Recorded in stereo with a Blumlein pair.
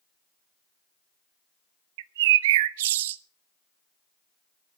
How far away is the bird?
About 0.5 m.